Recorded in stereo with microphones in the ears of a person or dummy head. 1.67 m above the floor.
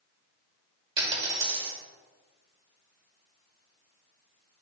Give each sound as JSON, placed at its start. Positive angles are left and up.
{"t": 1.0, "sound": "a dropped coin", "side_deg": -25, "distance_m": 2.5}